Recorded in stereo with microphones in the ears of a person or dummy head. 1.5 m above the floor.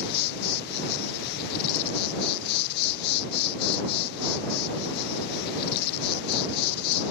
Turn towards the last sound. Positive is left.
turn(degrees=55)  # may be behind; listen again after turning